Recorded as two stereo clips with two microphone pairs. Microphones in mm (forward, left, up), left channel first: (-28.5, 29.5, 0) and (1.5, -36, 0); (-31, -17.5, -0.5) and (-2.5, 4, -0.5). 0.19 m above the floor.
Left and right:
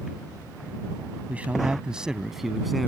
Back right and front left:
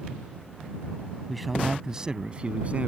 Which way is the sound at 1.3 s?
65° right.